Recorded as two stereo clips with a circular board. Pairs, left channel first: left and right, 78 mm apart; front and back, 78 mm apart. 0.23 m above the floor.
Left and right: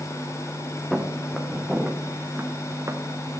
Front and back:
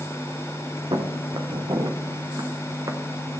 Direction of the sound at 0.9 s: 175° left.